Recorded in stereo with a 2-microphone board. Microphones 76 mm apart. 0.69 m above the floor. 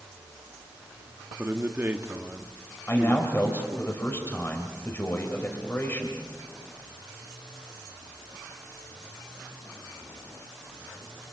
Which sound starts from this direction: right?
A man speaking, at 1.4 s.